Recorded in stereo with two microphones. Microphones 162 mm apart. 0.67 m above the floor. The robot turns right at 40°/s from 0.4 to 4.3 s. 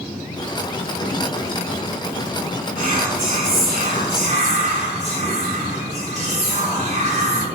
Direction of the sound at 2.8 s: 110° right.